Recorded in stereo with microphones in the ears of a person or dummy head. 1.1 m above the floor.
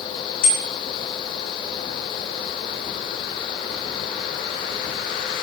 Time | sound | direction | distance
0.4 | a bicycle bell | 90° left | 9 m